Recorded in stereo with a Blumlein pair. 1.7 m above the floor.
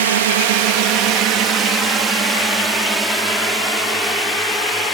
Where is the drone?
60° right; by 4.9 s 10° left.